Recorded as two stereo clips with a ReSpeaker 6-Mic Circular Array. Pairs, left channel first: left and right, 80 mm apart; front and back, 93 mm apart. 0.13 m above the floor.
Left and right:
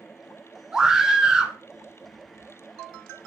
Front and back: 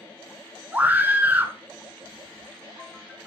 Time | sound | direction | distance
0.7 | a scream | 155° right | 1.2 m